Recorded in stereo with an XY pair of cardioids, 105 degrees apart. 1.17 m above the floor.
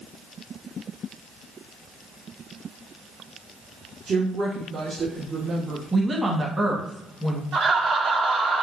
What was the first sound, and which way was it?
A woman speaking, 45° right.